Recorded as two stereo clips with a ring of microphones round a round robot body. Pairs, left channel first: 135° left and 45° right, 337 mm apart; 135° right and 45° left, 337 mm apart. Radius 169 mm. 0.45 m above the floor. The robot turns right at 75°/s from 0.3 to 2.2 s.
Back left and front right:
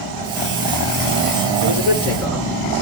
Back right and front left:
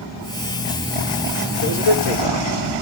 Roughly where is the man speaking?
Behind.